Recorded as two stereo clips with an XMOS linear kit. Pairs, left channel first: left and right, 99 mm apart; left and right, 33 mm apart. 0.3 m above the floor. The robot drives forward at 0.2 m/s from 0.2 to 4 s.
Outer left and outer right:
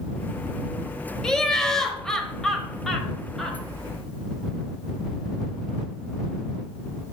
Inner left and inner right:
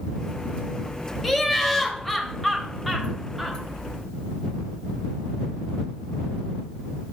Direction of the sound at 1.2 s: 5° left (ahead or behind).